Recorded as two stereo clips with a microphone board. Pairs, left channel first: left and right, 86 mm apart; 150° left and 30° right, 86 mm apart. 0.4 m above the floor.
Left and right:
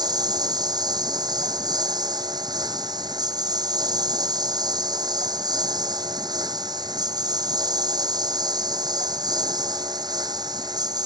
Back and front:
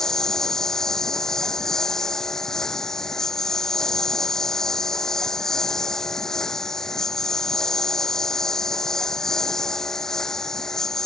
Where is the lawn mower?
125° right.